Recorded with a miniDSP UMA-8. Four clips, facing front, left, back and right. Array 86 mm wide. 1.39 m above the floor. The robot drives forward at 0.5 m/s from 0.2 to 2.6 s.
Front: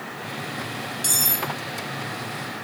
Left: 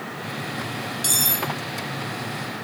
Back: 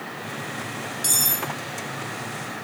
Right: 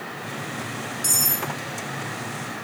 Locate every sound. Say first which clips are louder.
1.0 s cutlery clinking: left 3 dB, front 2 dB; 90° left; by 1.5 s 100° left